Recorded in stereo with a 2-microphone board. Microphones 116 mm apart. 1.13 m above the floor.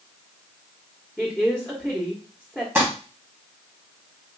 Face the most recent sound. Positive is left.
turn(degrees=-15)  # may be behind; listen again after turning